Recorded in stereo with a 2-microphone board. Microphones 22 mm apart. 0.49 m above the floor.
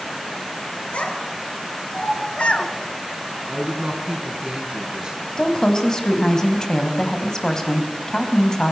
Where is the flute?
No flute in this recording.